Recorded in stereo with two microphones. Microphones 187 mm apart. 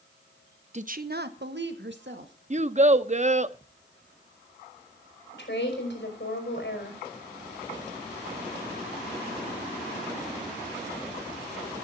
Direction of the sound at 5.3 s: 70° left (ahead or behind).